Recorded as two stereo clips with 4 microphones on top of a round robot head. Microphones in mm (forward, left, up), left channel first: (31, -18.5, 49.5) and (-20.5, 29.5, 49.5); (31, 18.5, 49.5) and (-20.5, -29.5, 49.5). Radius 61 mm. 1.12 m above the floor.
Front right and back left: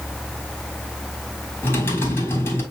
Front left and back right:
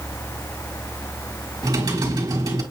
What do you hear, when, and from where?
1.6 s typing on a keyboard: 105° right, 3.5 m